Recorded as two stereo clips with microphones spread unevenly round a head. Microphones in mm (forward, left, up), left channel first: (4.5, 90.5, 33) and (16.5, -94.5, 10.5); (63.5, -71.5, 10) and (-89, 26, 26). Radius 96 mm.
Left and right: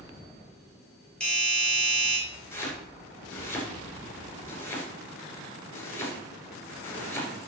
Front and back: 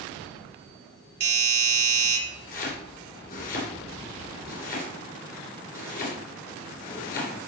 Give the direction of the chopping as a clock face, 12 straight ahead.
11 o'clock.